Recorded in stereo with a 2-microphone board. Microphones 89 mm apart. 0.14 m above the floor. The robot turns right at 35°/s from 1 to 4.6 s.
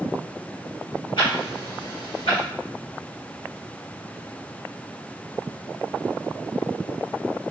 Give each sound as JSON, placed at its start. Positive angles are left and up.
{"t": 1.2, "sound": "ticking", "side_deg": 70, "distance_m": 1.7}